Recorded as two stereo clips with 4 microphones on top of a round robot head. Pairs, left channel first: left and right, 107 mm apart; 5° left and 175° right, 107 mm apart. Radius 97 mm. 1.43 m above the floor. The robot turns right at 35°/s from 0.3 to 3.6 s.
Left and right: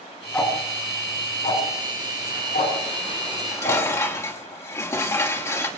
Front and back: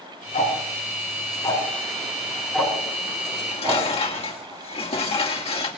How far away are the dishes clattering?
About 2 m.